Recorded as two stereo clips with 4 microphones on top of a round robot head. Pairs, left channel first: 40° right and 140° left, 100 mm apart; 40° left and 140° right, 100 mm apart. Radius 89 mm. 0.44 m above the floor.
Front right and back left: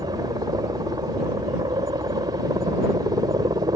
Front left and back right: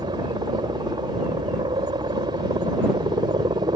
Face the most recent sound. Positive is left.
turn(degrees=-175)